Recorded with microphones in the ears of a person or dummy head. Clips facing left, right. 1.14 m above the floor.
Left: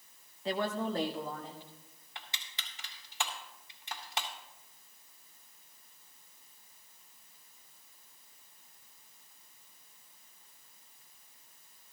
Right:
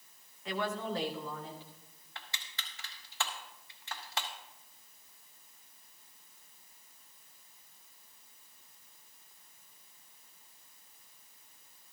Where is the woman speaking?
25° left (ahead or behind), 0.7 m; by 1.7 s 35° left (ahead or behind), 2.5 m.